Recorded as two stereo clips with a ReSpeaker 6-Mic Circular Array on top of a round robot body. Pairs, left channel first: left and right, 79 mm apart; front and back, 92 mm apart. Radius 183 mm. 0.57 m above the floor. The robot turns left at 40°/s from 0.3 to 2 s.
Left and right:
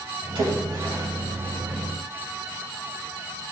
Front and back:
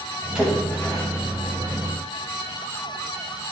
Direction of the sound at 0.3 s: 100° right.